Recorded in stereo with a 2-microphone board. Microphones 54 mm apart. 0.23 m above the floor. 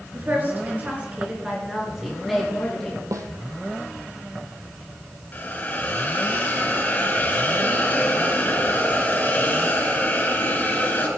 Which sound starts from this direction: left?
A hiss, at 5.3 s.